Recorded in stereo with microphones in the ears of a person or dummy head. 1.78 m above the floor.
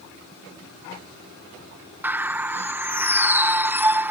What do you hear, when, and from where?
2.0 s a bird: 15° right (ahead or behind)